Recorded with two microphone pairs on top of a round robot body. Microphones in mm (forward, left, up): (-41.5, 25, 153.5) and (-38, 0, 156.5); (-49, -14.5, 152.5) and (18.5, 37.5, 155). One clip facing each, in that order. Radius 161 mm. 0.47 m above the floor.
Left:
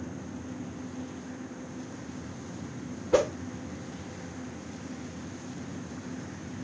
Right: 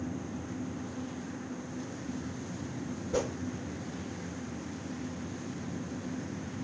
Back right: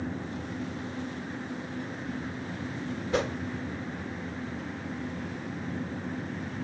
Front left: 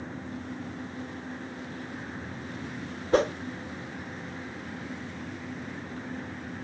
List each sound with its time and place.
3.1 s a whoosh: 90° left, 1.3 m